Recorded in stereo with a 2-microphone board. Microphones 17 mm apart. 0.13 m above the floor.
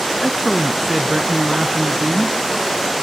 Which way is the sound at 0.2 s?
35° right (ahead or behind).